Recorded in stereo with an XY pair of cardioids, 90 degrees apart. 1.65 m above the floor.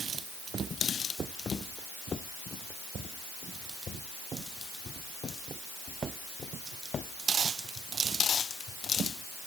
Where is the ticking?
No ticking in this recording.